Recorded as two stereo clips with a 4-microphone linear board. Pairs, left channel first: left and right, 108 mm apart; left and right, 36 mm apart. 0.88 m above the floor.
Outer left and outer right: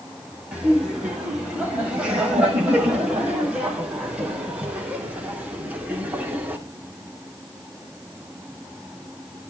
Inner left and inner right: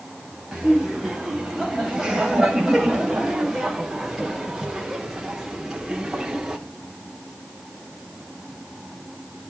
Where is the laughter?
10° right (ahead or behind), 7.5 m; by 6.6 s 15° right (ahead or behind), 2.5 m.